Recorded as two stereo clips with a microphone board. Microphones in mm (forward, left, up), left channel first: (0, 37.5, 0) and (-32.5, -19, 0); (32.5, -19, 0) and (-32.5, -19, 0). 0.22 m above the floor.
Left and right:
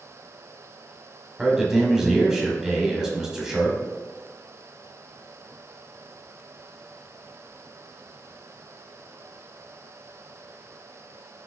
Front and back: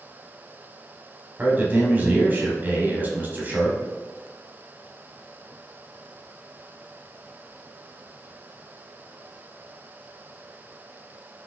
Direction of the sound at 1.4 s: 170° left.